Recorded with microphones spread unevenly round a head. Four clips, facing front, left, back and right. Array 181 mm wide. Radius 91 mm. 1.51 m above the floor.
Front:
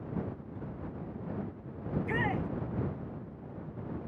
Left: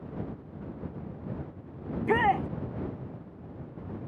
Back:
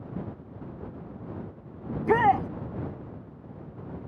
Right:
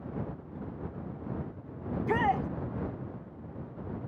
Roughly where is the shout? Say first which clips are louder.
Left 3 dB, back 11 dB; behind.